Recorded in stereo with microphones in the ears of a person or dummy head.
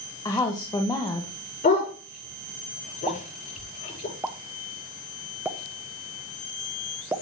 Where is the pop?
10° right (ahead or behind), 0.7 m.